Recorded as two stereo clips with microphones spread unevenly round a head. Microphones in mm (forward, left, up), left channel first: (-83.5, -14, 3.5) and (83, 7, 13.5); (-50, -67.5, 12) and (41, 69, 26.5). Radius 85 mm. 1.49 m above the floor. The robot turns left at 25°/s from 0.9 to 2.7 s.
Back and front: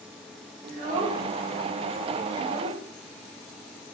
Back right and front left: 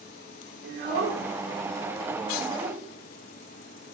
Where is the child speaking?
50° left, 2.5 m; by 2.8 s 5° left, 2.5 m.